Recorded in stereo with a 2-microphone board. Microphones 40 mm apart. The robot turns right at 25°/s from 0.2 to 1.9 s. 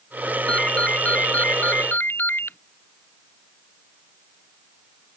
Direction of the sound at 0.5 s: 25° left.